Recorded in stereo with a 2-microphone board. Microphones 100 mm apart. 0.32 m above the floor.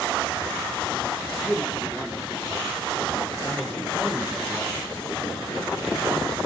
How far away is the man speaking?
About 7.5 m.